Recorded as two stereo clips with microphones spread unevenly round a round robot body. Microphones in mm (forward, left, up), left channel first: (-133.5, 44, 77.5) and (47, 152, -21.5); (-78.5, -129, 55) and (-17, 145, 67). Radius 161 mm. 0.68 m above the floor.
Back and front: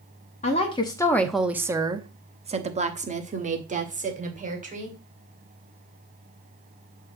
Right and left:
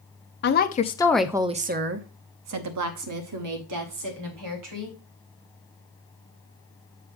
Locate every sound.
0.4 s a woman speaking: 70° right, 0.8 m; by 4.9 s 75° left, 2 m